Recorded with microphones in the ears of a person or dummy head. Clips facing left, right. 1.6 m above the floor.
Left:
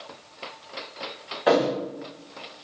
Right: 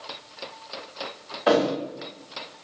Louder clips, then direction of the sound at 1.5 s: Even; centre (ahead or behind).